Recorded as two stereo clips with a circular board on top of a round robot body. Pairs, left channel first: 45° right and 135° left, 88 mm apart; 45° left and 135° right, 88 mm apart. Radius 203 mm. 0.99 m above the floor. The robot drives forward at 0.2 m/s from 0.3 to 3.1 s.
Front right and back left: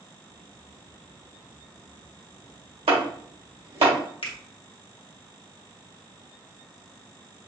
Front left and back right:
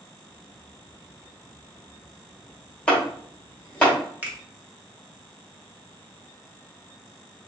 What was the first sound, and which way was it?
Chopping, 125° left.